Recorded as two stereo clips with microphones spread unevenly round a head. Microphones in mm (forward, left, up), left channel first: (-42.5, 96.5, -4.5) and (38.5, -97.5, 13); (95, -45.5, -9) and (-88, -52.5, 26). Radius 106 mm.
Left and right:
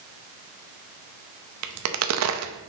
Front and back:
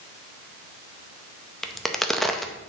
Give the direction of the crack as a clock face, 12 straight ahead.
3 o'clock.